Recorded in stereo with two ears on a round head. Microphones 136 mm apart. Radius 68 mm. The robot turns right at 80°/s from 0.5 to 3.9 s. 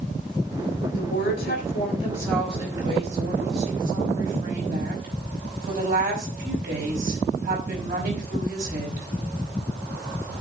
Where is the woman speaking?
55° left, 5 m; by 9.1 s 65° right, 5 m.